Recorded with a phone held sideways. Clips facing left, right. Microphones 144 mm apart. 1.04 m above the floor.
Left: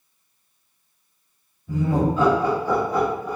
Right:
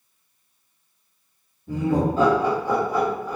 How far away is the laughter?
About 1.4 m.